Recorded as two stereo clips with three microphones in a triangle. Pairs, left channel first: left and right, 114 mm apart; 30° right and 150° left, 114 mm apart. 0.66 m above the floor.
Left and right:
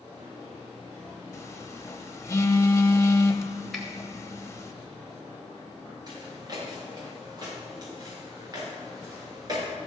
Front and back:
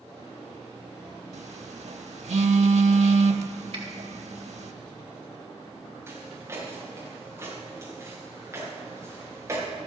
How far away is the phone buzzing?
About 0.8 m.